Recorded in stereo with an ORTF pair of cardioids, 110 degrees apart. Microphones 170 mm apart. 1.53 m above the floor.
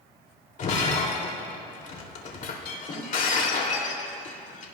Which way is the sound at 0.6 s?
50° left.